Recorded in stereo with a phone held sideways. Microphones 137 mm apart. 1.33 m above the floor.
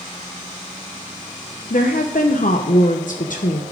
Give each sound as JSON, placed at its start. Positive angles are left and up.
{"t": 1.7, "sound": "a woman speaking", "side_deg": 65, "distance_m": 0.8}